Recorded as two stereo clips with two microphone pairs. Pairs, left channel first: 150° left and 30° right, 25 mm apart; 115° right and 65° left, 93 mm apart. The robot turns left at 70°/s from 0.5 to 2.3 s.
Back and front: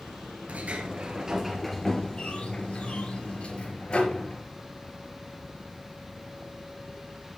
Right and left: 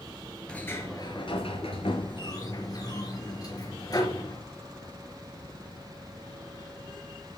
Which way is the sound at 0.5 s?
40° right.